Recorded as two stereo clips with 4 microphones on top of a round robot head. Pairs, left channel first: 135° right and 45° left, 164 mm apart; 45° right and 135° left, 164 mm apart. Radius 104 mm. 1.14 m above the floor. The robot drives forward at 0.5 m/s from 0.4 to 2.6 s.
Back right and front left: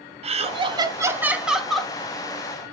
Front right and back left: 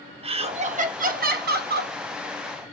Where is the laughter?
90° left, 0.8 m; by 1.9 s 140° left, 1.1 m.